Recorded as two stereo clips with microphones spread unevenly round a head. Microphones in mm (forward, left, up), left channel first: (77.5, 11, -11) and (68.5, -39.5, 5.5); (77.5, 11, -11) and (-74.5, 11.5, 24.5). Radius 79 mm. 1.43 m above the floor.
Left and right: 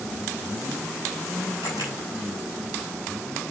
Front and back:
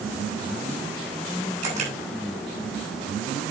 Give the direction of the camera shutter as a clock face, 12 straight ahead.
7 o'clock.